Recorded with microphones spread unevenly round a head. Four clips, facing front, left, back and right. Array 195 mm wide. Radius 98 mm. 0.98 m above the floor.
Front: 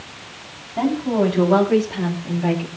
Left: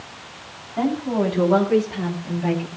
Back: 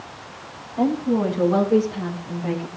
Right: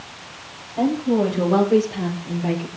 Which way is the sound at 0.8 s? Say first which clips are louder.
Right 2 dB, front 1 dB; 20° left.